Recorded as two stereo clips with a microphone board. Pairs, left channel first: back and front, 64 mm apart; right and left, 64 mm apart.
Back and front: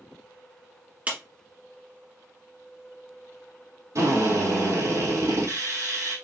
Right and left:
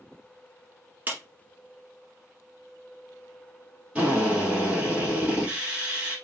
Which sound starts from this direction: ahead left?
A clap, at 1.1 s.